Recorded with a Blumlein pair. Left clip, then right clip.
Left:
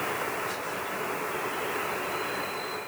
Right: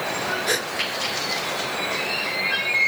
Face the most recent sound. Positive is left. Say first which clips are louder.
# right 9 dB
turn(degrees=-45)